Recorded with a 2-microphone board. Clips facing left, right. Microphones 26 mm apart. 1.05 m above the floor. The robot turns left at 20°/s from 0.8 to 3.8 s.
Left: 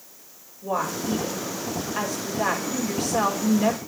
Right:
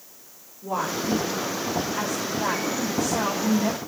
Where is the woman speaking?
165° left, 3 m; by 3.8 s 105° left, 3 m.